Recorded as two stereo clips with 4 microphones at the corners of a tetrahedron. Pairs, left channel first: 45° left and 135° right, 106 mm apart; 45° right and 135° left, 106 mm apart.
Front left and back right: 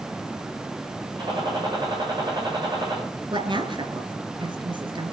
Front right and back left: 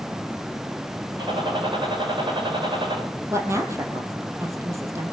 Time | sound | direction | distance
1.2 | a gunshot | 175° left | 9.5 m
3.3 | a woman speaking | 165° right | 3 m